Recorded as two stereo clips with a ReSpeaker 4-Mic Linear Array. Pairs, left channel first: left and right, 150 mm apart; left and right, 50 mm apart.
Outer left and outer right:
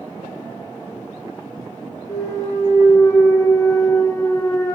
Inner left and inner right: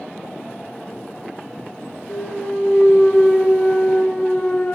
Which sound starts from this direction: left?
A clunk, at 2.1 s.